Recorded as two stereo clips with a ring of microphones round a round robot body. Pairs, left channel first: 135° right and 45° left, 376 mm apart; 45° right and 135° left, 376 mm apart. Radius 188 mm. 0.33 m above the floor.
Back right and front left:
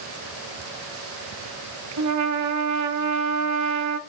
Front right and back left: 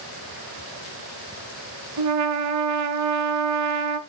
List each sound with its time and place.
2.0 s a trumpet: 90° left, 0.9 m